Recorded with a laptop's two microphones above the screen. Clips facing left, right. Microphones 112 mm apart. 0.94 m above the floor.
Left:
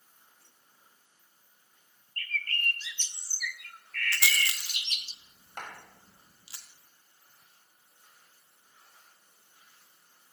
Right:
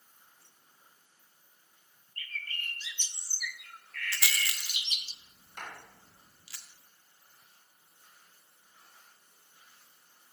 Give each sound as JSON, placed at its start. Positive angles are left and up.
{"t": 2.2, "sound": "a bird", "side_deg": -10, "distance_m": 0.5}
{"t": 4.1, "sound": "a rattle", "side_deg": 25, "distance_m": 0.9}
{"t": 5.6, "sound": "a clap", "side_deg": 60, "distance_m": 5.0}